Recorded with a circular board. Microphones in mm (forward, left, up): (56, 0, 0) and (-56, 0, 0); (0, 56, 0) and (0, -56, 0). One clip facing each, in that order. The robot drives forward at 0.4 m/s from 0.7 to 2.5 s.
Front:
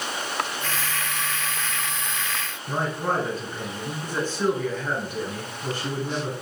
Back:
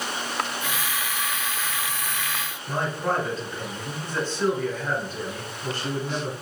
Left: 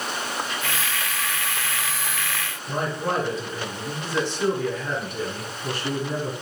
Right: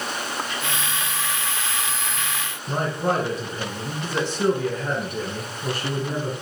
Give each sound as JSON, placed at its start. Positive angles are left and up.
{"t": 2.7, "sound": "a man speaking", "azimuth_deg": -75, "distance_m": 1.9}